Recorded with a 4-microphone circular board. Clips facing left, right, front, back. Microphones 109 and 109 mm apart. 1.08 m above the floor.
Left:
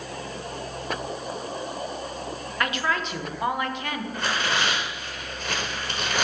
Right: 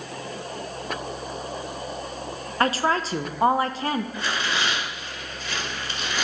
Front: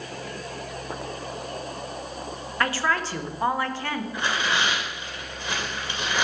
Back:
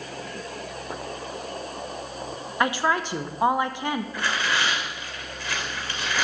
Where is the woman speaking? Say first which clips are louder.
Right 5 dB, back 2 dB; 120° right, 0.6 m.